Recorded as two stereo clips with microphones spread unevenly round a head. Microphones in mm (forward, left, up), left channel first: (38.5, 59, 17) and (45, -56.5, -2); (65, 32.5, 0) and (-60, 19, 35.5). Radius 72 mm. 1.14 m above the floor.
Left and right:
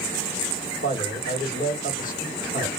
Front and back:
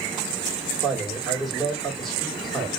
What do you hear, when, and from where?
0.8 s a man speaking: 90° left, 2.0 m